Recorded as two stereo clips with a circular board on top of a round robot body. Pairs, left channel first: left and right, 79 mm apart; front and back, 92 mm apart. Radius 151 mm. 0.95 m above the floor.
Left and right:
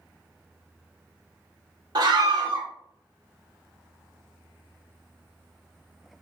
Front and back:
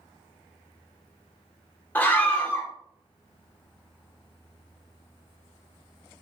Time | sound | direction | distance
1.9 | a scream | 70° right | 2.5 m